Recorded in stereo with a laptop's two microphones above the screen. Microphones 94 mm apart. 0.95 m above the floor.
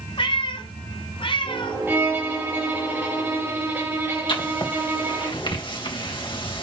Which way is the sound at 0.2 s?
65° left (ahead or behind).